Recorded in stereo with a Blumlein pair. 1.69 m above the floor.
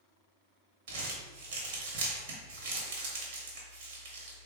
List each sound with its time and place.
0.9 s crumpling: 55° right, 1.0 m